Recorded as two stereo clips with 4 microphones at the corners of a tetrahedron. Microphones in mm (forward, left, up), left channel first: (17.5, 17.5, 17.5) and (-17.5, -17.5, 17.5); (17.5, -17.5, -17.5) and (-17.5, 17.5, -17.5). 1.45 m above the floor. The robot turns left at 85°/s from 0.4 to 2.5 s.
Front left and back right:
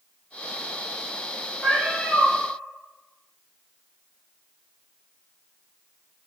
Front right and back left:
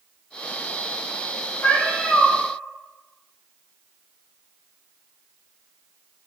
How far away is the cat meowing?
About 2.0 m.